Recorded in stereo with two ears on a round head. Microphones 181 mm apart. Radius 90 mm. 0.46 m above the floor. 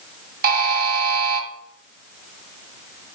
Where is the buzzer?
50° right (ahead or behind), 1.9 m.